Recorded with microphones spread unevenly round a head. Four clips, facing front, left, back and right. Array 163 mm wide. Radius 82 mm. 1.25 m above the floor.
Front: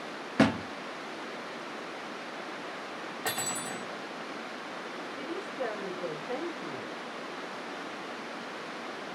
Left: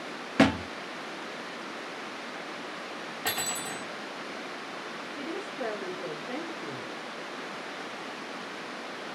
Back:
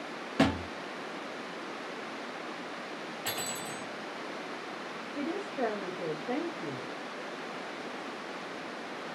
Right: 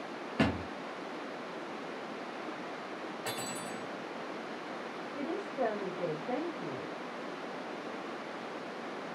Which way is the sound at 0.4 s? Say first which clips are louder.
Left 8 dB, front 2 dB; 60° left.